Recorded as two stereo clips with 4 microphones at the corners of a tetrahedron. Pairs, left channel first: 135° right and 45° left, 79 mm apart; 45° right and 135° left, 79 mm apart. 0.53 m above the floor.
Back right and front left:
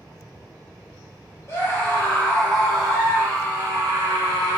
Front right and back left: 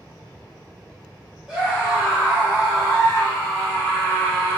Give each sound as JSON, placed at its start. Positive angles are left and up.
{"t": 1.5, "sound": "a scream", "azimuth_deg": -155, "distance_m": 1.2}